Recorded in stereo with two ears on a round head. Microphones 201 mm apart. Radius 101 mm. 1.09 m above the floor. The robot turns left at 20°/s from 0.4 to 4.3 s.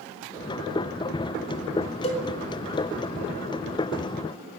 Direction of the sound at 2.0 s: 30° left (ahead or behind).